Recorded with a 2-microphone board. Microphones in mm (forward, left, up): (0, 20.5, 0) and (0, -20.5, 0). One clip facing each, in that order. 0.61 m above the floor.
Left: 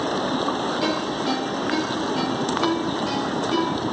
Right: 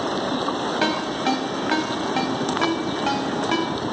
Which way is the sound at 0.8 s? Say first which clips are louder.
Right 1 dB; 70° right (ahead or behind).